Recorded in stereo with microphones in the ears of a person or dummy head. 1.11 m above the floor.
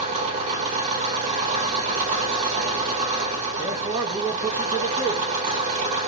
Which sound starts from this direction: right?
An engine running, at 0.0 s.